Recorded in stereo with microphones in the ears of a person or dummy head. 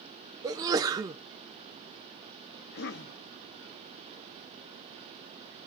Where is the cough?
55° left (ahead or behind), 1.4 m.